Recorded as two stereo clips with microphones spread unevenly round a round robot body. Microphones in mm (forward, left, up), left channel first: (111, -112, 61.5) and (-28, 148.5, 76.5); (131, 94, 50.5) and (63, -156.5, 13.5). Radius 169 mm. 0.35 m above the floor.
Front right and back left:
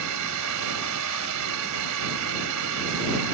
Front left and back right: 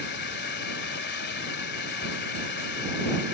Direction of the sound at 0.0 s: 130° left.